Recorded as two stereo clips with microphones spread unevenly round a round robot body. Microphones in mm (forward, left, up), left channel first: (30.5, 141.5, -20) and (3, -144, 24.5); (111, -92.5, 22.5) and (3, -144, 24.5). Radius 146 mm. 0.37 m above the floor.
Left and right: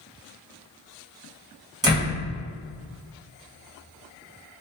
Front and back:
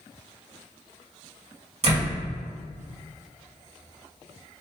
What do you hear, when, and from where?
1.8 s a door slam: 175° right, 1.7 m